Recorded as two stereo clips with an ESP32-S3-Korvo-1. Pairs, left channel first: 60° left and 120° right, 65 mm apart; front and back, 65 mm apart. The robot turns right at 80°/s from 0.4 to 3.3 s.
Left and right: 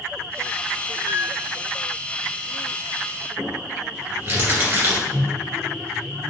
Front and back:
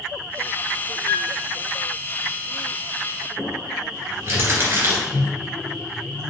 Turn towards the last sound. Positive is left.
turn(degrees=-120)